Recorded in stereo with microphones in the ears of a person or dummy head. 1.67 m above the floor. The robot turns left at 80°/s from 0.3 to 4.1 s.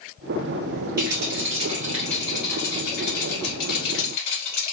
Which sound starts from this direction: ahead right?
A rattle, at 1.0 s.